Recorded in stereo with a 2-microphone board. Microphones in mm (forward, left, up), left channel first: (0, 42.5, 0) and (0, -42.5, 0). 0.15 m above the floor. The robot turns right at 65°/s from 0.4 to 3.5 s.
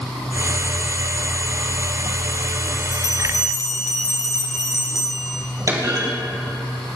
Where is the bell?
110° right, 1.7 m; by 5.4 s 70° right, 1.7 m.